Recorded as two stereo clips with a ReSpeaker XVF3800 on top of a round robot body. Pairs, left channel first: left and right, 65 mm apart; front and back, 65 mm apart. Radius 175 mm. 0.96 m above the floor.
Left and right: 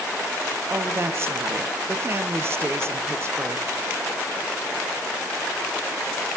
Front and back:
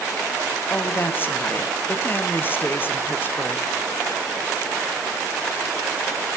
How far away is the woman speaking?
About 0.9 m.